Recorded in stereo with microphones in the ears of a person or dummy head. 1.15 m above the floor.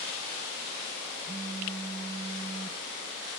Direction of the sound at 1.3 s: 60° right (ahead or behind).